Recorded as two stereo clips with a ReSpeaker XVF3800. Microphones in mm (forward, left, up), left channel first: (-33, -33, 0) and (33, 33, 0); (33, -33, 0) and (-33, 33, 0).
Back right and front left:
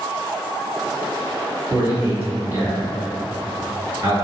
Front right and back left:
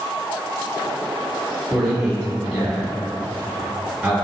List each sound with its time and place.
1.7 s a man speaking: 50° left, 1.8 m